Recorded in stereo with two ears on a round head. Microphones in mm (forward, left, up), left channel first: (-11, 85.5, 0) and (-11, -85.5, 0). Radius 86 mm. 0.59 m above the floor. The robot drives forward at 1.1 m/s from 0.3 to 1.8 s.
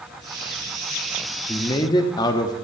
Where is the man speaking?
20° left (ahead or behind), 0.8 m.